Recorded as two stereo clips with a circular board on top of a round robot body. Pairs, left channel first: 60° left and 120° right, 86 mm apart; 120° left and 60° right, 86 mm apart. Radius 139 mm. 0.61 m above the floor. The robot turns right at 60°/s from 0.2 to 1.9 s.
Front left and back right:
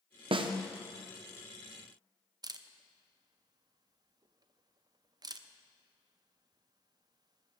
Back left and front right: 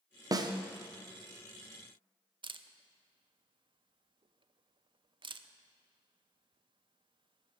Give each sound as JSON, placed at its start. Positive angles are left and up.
{"t": 0.3, "sound": "a snare drum", "azimuth_deg": -105, "distance_m": 0.9}
{"t": 2.4, "sound": "a camera shutter", "azimuth_deg": -80, "distance_m": 0.7}